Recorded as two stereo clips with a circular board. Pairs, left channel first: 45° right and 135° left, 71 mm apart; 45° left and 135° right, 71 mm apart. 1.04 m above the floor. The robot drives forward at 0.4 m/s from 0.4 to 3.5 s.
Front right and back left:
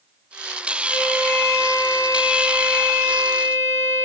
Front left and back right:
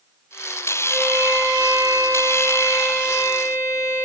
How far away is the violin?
About 7 m.